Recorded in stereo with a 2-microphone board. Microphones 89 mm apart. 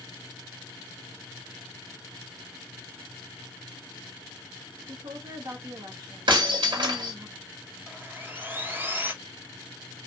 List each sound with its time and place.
4.9 s a woman speaking: 50° right (ahead or behind), 1.2 m
6.3 s breaking glass: 70° right (ahead or behind), 1.9 m
7.9 s sawing: 25° right (ahead or behind), 0.7 m